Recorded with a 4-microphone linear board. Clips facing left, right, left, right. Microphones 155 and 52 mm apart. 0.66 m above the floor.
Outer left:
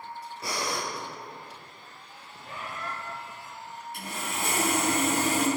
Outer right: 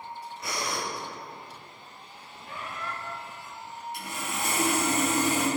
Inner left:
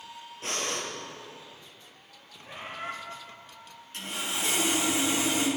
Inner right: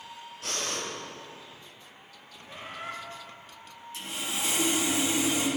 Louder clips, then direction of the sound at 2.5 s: Even, inner left 2 dB; 45° left (ahead or behind).